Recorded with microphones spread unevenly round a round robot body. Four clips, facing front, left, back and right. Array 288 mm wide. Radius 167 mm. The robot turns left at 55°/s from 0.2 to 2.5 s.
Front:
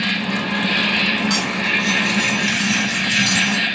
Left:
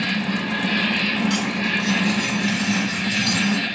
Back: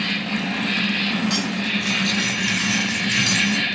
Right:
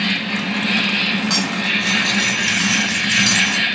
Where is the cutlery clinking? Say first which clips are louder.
Right 1 dB, front 2 dB; 40° right, 1.8 m; by 3.8 s 105° right, 1.8 m.